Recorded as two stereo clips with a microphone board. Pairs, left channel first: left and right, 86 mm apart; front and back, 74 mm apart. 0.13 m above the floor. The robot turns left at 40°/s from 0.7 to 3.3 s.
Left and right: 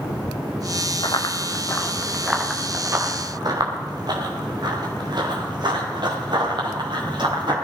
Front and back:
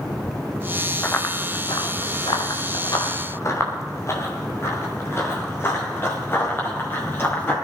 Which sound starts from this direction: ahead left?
Running footsteps, at 1.0 s.